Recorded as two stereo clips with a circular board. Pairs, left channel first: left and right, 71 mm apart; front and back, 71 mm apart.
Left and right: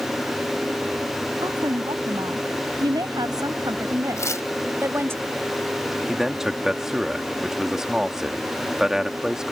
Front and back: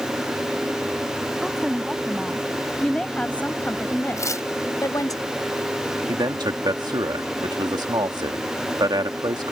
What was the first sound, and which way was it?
A woman speaking, 100° right.